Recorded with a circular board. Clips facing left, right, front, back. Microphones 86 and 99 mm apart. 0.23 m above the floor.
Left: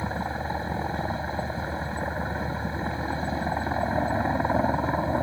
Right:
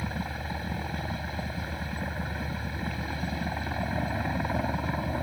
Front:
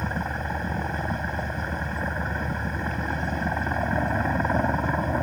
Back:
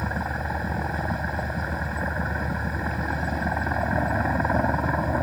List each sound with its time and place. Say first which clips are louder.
0.0 s a helicopter: left 5 dB, back 1 dB; 100° left